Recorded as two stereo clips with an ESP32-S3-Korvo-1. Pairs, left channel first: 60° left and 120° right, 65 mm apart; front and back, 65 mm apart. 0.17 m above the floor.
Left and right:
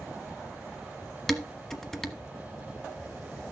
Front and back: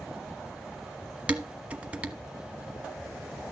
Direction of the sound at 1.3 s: 140° left.